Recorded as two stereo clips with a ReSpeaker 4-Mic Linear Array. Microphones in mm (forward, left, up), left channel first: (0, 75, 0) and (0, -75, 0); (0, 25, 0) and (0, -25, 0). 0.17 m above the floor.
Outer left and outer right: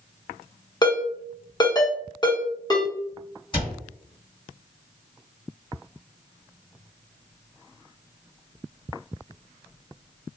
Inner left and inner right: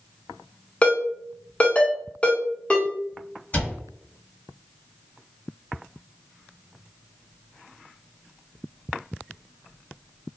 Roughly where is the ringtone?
Left.